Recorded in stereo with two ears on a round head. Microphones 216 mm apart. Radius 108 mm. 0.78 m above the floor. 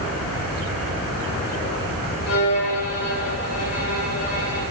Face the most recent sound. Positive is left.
turn(degrees=75)  # may be behind; listen again after turning